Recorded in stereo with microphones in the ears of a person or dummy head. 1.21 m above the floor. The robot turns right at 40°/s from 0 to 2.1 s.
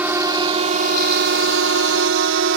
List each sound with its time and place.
0.0 s a drone: 10° right (ahead or behind); by 2.6 s 65° right (ahead or behind)